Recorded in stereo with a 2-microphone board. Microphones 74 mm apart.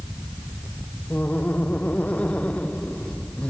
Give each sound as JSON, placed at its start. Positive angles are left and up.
{"t": 1.1, "sound": "laughter", "side_deg": 20}